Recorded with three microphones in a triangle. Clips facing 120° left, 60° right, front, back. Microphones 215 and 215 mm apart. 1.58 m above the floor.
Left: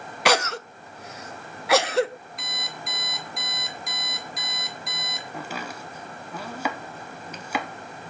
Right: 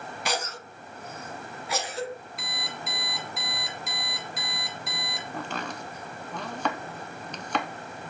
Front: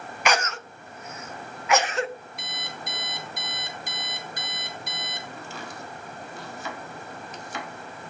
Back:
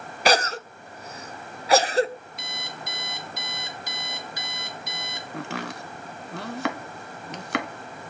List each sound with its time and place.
0.2 s a cough: 130° left, 0.7 m
2.4 s an alarm clock: 30° left, 1.7 m
5.3 s chopping: 160° right, 1.0 m